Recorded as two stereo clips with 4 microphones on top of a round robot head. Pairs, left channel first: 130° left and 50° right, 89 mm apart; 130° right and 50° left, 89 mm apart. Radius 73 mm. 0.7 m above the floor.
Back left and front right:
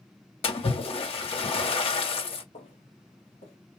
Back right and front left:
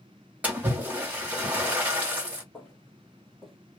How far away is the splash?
About 2 m.